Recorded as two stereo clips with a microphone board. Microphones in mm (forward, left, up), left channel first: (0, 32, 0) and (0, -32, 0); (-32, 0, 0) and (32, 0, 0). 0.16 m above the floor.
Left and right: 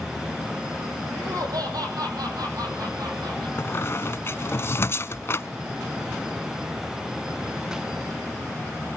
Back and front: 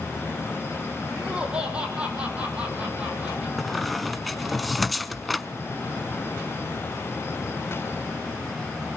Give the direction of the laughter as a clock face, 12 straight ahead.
3 o'clock.